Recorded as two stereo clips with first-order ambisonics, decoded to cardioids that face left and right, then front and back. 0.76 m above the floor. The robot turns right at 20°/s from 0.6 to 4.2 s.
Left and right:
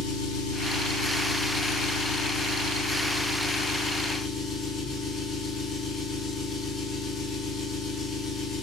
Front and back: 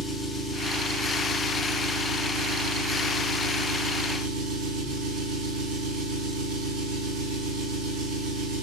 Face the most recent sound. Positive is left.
turn(degrees=155)